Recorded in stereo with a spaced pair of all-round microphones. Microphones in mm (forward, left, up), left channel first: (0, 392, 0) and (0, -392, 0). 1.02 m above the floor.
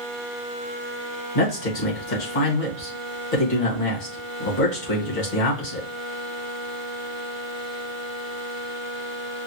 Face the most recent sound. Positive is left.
turn(degrees=70)  # may be behind; listen again after turning